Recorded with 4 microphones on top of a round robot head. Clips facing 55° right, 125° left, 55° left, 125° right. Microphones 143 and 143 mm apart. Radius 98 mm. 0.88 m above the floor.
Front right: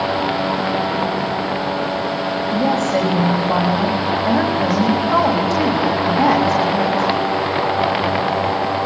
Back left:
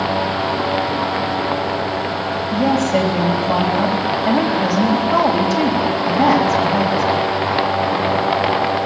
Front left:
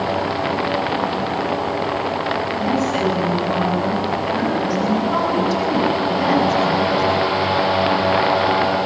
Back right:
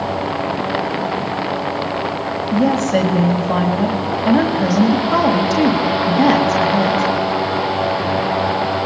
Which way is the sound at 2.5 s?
150° right.